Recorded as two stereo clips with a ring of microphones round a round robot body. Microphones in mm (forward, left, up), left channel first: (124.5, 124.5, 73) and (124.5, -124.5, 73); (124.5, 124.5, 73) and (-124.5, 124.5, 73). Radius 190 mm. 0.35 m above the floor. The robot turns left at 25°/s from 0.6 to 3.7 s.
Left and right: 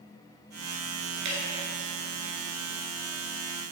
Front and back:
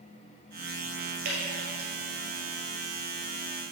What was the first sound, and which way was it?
Dripping, 110° right.